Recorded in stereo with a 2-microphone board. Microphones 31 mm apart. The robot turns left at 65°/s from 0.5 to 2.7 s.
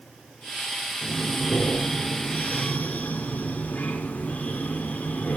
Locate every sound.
1.0 s breathing: straight behind, 1.6 m; by 5.4 s 70° left, 1.6 m